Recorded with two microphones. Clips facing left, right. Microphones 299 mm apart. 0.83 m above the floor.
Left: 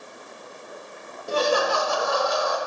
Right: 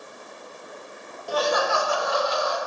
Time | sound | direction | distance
1.3 | laughter | 30° left (ahead or behind) | 0.6 m